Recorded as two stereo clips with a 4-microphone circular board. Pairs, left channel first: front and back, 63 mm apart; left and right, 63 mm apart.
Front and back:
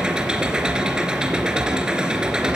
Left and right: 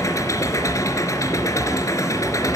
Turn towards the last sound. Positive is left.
turn(degrees=105)